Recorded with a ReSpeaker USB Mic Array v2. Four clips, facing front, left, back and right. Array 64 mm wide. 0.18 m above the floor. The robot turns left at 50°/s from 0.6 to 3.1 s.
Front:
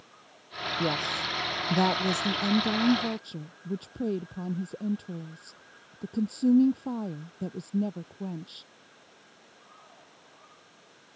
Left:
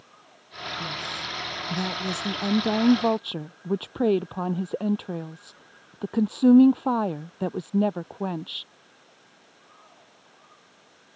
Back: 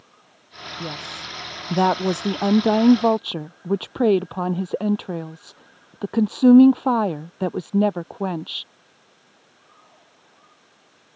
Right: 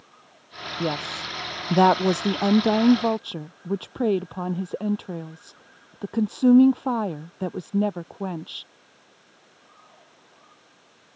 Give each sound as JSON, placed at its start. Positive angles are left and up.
{"t": 0.8, "sound": "a woman speaking", "azimuth_deg": -70}